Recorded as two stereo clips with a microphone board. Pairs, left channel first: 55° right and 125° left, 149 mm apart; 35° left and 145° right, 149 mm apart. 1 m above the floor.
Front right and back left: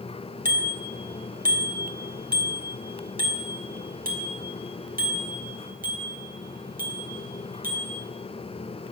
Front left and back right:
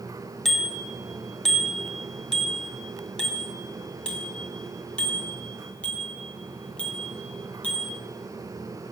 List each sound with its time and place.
0.5 s a bicycle bell: 120° left, 4.5 m; by 8.0 s 115° left, 8 m